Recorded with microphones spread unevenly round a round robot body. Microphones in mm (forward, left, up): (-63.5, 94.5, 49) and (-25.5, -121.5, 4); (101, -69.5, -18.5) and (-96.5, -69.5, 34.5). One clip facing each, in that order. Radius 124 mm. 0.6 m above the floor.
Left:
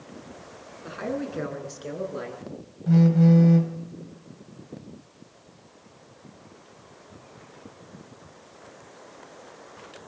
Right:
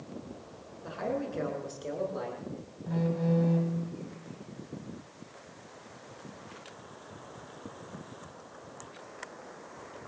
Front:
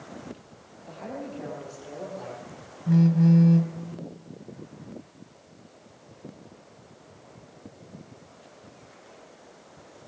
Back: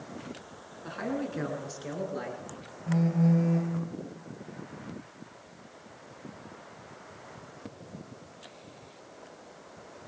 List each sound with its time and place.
0.8 s a man speaking: 165° left, 9 m; by 2.4 s 160° left, 11 m
2.9 s a phone buzzing: 55° left, 2.5 m